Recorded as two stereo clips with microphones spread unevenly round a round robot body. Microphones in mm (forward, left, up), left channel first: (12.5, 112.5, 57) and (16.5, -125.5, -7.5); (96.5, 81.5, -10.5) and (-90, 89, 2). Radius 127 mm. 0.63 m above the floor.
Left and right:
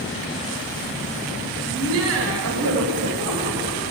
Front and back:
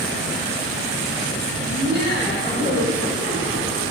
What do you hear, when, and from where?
1.7 s laughter: 90° right, 2.5 m; by 3.9 s 45° right, 4 m